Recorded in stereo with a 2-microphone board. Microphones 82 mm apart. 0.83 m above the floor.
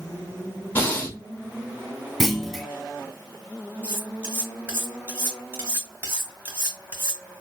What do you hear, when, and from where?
0.8 s breathing: 20° left (ahead or behind), 2 m
2.2 s a clunk: centre (ahead or behind), 0.6 m
3.8 s cutlery clinking: 25° right (ahead or behind), 3 m